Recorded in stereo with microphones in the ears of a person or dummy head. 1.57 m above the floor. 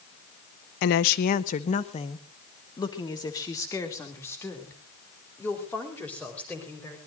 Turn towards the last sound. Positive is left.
turn(degrees=10)  # may be behind; listen again after turning